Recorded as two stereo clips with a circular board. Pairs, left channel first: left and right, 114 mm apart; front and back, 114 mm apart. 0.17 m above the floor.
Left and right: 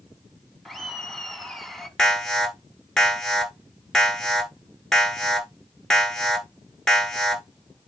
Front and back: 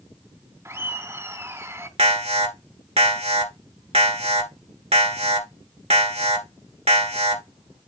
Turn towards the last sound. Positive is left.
turn(degrees=175)